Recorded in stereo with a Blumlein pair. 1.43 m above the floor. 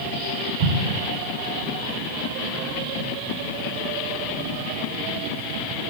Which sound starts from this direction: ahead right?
An explosion, at 0.6 s.